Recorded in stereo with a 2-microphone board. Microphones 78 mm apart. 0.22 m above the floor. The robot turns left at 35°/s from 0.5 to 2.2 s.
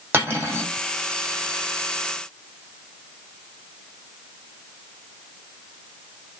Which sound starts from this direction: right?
Cutlery clinking, at 0.1 s.